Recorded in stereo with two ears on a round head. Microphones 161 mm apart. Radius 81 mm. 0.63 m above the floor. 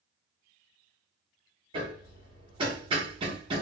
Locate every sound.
1.7 s hammering: 30° right (ahead or behind), 1.0 m